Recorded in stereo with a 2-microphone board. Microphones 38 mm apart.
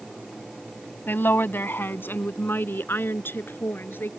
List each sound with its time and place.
1.1 s a woman speaking: 65° left (ahead or behind); by 4.1 s 70° left (ahead or behind)